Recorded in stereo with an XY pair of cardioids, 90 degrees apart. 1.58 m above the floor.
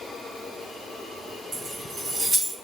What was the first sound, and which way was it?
Keys jangling, 50° right.